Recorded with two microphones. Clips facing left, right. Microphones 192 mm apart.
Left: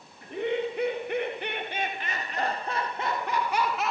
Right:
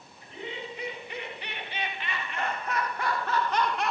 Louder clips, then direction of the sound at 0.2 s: Left 11 dB; 60° left (ahead or behind).